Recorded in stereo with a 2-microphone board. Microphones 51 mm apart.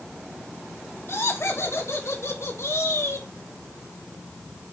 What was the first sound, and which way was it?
Laughter, 60° left (ahead or behind).